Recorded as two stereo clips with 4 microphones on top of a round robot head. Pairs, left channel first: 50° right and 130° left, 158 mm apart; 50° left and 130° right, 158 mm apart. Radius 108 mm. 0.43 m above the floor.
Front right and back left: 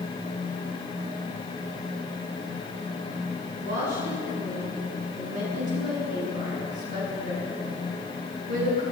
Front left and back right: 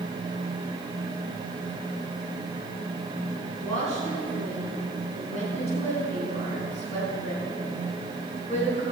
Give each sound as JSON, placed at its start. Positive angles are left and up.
{"t": 3.6, "sound": "a woman speaking", "azimuth_deg": 100, "distance_m": 4.0}